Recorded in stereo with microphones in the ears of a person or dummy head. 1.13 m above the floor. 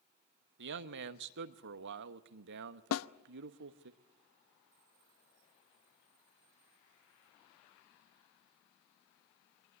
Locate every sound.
0.6 s a man speaking: 60° right (ahead or behind), 1.0 m
2.9 s a snare drum: 75° left (ahead or behind), 0.7 m